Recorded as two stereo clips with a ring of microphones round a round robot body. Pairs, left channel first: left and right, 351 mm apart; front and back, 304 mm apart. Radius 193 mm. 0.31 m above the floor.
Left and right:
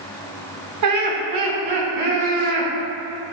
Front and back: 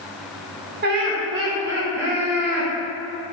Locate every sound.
0.8 s laughter: 125° right, 2.5 m; by 2.7 s 95° right, 4.5 m